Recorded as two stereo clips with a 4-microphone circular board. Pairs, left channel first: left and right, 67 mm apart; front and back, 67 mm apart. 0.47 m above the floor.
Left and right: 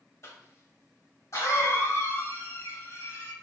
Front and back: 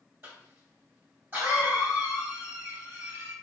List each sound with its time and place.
0.2 s a cough: 125° left, 2.5 m